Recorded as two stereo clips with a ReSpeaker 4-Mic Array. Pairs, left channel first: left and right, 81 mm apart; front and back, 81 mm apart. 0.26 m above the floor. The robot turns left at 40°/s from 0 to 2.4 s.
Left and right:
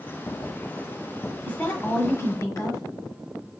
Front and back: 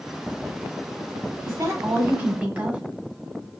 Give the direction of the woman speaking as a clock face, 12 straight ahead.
7 o'clock.